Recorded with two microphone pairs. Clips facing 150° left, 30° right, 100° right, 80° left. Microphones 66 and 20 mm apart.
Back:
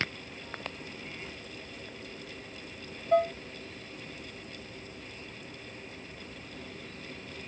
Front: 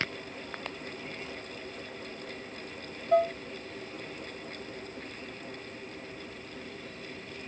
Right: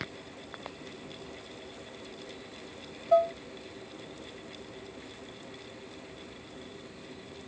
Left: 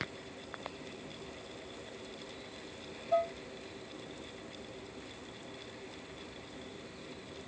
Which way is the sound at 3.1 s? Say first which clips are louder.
Front 1 dB, right 7 dB; 115° right.